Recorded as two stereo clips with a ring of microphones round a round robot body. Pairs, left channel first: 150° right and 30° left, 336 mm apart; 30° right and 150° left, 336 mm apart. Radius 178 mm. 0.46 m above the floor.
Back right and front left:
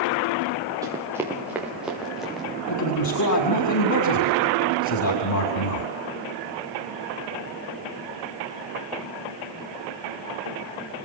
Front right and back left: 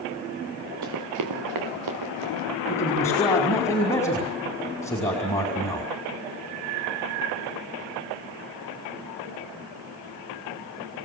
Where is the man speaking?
110° right, 5 m.